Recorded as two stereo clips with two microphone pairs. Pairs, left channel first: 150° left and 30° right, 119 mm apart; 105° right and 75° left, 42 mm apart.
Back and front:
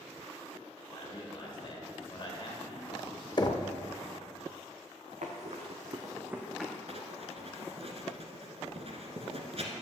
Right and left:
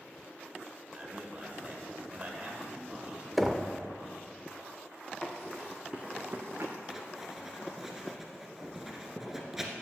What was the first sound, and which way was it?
A man speaking, 120° left.